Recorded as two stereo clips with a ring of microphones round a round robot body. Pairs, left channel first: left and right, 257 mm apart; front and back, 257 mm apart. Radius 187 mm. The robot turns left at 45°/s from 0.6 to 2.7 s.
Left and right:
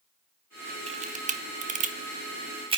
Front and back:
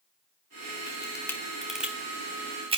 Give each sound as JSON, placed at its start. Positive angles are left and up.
{"t": 0.9, "sound": "a camera shutter", "azimuth_deg": -55, "distance_m": 0.8}